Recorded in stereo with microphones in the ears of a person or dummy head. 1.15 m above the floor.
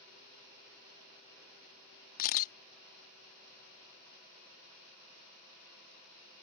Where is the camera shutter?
50° left (ahead or behind).